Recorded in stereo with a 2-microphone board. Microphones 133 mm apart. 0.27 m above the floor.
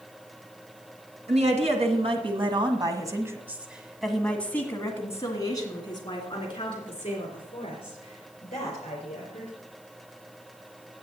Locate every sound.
1.3 s a woman speaking: 60° right (ahead or behind), 2.5 m; by 9.5 s 50° left (ahead or behind), 5 m